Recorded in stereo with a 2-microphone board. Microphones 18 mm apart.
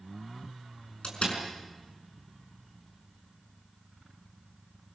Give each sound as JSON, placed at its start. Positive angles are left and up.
{"t": 1.0, "sound": "a door slam", "side_deg": 80, "distance_m": 5.0}